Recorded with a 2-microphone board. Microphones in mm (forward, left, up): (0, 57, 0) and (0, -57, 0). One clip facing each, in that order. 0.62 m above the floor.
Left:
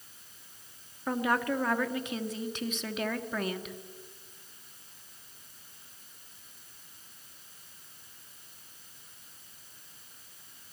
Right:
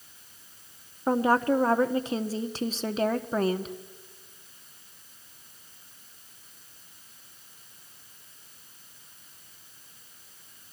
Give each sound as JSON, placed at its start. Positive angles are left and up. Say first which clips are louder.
{"t": 1.1, "sound": "a woman speaking", "louder": "right 6 dB", "side_deg": -35, "distance_m": 1.1}